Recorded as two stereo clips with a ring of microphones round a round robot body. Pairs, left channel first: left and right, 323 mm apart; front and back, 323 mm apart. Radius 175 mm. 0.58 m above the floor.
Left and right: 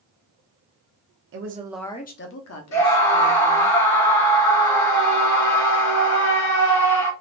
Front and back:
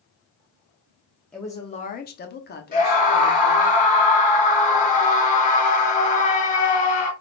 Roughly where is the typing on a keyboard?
I don't hear typing on a keyboard.